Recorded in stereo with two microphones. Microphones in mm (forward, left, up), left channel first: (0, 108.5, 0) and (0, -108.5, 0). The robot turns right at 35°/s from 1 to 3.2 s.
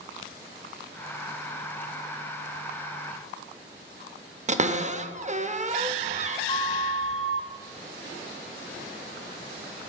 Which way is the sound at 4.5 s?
35° right (ahead or behind).